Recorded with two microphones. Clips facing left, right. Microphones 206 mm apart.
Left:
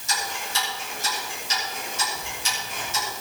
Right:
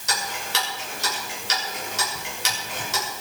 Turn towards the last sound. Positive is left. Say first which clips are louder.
# right 1 dB
turn(degrees=-80)